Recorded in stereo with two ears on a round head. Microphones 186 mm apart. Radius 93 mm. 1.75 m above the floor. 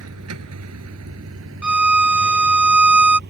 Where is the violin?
5° right (ahead or behind).